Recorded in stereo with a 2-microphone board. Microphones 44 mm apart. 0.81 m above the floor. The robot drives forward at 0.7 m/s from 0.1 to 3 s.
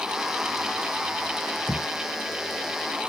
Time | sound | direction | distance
1.7 | a thud | 30° left (ahead or behind) | ?